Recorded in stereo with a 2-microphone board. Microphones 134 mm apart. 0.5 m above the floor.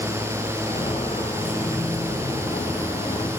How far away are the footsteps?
About 8 m.